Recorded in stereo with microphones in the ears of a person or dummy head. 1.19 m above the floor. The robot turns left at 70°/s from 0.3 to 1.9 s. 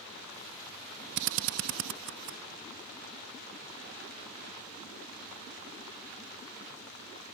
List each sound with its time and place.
1.2 s a drill: 60° right (ahead or behind); by 2.4 s 65° right (ahead or behind)